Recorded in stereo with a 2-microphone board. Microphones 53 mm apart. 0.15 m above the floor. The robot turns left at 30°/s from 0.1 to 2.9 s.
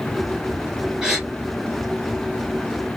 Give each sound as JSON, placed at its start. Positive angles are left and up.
{"t": 1.0, "sound": "a gasp", "side_deg": -10, "distance_m": 1.5}